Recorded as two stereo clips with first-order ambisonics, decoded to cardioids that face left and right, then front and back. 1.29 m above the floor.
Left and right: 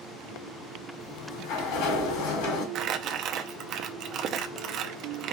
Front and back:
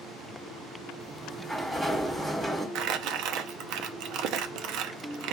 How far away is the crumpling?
About 0.6 m.